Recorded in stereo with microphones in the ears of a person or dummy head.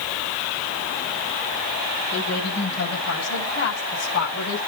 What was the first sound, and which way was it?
A woman speaking, 60° left (ahead or behind).